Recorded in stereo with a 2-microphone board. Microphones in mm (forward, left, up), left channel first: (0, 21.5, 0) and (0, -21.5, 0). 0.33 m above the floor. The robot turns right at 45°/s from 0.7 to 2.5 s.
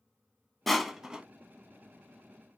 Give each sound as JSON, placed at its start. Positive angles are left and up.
{"t": 0.7, "sound": "crushing", "side_deg": 5, "distance_m": 0.5}